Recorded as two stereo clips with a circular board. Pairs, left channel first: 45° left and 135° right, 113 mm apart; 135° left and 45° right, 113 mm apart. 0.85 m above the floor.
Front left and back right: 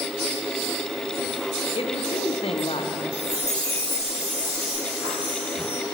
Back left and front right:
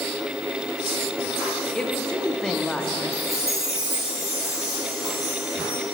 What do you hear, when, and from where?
1.8 s a woman speaking: 55° left, 0.5 m
3.1 s a chime: 165° right, 1.7 m